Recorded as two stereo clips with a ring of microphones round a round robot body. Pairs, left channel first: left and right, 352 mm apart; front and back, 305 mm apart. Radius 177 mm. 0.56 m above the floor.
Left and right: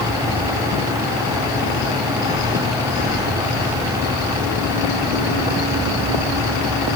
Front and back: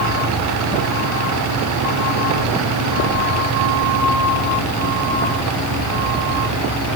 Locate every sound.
Only background noise.